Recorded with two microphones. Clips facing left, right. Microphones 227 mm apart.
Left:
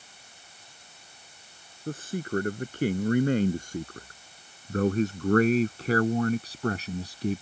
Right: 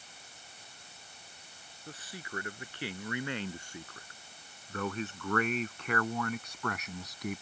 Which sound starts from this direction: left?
A man speaking, at 1.9 s.